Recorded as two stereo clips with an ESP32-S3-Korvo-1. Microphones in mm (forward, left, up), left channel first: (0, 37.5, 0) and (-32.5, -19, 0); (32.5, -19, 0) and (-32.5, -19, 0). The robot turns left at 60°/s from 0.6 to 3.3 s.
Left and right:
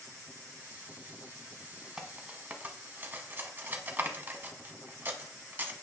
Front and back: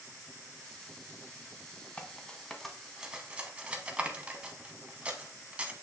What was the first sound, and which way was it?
Cutlery clinking, 45° right.